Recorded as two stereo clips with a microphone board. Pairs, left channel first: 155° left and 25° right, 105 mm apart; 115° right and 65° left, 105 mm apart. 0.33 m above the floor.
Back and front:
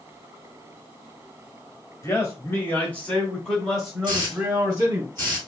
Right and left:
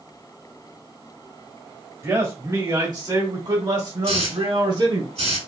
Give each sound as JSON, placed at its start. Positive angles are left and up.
{"t": 2.0, "sound": "a man speaking", "azimuth_deg": 115, "distance_m": 1.7}
{"t": 4.0, "sound": "a hiss", "azimuth_deg": 85, "distance_m": 2.5}